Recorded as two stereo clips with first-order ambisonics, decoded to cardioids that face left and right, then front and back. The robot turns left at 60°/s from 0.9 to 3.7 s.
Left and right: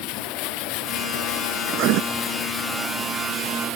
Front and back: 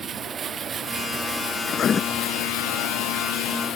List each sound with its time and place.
0.0 s running water: 115° left; by 3.8 s 50° right
1.7 s writing: 50° right; by 2.0 s 70° right